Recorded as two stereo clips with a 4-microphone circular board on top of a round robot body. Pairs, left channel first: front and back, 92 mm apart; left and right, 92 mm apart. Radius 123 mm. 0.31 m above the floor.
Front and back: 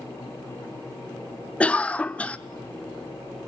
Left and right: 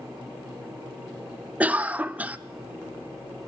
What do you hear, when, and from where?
1.6 s a cough: 50° right, 0.9 m